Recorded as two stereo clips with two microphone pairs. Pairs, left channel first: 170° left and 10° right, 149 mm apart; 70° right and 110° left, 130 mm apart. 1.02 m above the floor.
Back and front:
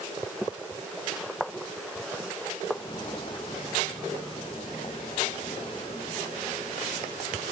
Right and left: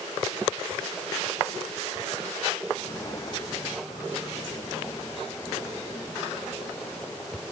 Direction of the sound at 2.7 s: 130° right.